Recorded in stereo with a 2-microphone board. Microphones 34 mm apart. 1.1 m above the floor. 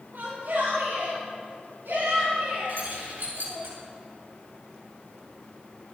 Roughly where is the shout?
Right.